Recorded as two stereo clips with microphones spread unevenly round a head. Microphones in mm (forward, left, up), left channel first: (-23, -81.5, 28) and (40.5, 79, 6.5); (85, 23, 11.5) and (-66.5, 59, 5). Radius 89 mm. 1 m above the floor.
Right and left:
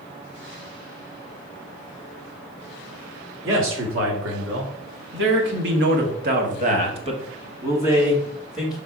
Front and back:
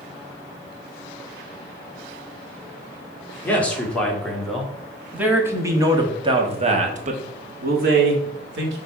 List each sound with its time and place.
3.4 s a man speaking: 65° left, 2.5 m; by 8.8 s 160° left, 1.8 m